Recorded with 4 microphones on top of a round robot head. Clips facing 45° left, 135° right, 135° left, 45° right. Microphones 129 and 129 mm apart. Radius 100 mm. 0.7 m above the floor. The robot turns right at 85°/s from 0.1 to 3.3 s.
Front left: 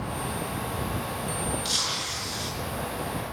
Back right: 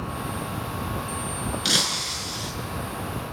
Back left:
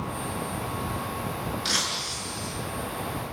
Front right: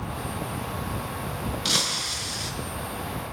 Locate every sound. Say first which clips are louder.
1.6 s breaking glass: back right 4 dB, front right 1 dB; 115° right, 5 m; by 2.5 s 40° right, 5 m